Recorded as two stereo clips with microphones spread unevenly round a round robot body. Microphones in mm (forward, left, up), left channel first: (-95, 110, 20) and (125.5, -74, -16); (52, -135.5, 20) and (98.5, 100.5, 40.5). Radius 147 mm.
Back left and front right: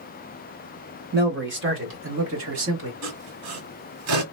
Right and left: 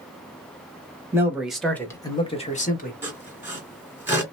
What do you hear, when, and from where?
1.1 s a man speaking: straight ahead, 1.4 m; by 2.9 s 60° right, 1.4 m
3.0 s sawing: straight ahead, 1.7 m